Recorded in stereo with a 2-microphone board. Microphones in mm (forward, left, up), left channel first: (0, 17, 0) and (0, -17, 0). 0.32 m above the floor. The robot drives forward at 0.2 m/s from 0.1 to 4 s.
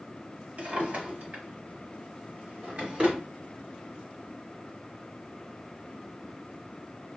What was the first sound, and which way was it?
A drawer, 50° right (ahead or behind).